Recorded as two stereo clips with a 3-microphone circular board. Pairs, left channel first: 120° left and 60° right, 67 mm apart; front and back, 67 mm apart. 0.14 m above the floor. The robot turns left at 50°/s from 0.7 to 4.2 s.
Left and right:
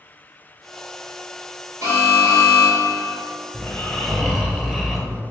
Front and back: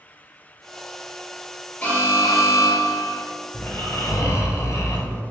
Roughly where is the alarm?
Ahead right.